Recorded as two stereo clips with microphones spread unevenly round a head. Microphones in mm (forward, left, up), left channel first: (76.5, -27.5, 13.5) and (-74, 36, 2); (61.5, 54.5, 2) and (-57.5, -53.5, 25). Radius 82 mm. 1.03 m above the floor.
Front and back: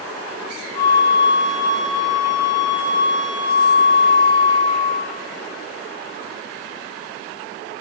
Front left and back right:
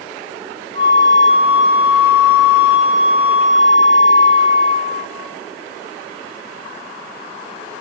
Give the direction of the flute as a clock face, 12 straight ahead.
1 o'clock.